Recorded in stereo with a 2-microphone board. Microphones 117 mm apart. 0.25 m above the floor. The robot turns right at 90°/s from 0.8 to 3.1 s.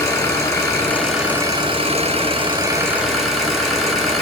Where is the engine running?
150° left, 2.5 m; by 4.2 s straight ahead, 2.5 m.